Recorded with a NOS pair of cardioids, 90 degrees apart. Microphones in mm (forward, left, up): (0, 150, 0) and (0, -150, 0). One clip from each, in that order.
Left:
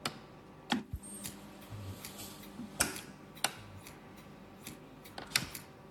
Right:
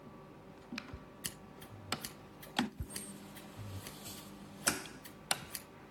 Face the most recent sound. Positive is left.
turn(degrees=-25)